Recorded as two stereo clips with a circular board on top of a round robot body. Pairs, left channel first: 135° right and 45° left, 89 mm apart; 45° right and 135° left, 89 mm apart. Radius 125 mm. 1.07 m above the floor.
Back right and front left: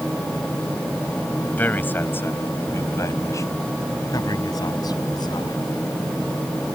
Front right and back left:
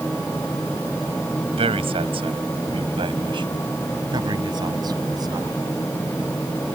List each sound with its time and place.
1.5 s a man speaking: 150° left; by 5.6 s 175° right